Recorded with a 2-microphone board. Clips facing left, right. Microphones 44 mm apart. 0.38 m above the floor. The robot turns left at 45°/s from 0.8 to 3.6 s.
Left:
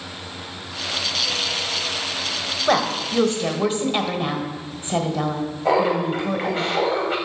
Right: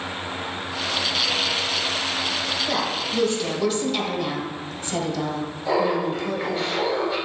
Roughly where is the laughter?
Left.